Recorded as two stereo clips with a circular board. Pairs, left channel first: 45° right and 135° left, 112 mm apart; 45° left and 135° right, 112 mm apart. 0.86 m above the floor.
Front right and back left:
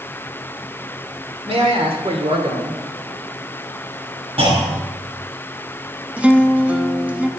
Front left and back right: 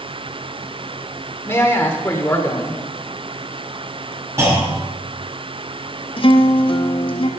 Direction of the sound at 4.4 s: 160° left.